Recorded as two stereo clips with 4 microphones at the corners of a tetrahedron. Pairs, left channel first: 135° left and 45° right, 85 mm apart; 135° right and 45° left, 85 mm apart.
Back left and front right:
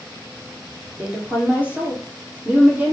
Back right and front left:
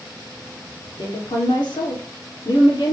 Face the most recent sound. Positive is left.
turn(degrees=-115)